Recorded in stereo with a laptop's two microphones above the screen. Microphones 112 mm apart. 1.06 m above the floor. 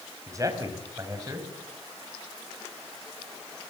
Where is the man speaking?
30° right (ahead or behind), 5 m.